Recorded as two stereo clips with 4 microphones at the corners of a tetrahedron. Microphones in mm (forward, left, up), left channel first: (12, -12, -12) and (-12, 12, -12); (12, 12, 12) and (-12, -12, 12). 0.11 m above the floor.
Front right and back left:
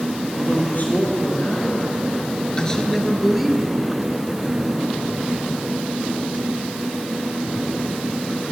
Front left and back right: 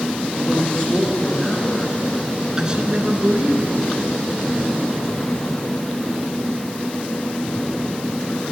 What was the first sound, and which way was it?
A man speaking, 15° right.